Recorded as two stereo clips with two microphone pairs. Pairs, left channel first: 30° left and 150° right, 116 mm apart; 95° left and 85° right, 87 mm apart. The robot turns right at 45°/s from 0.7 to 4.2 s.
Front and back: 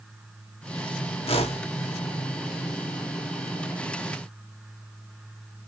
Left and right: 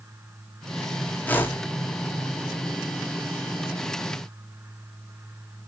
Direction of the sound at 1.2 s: 25° left.